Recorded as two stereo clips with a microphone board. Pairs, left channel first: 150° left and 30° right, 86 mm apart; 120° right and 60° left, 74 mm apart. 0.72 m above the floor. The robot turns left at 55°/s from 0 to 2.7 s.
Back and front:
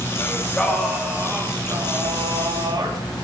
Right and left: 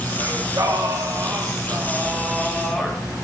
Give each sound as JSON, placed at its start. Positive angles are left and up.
{"t": 0.2, "sound": "singing", "azimuth_deg": 95, "distance_m": 1.4}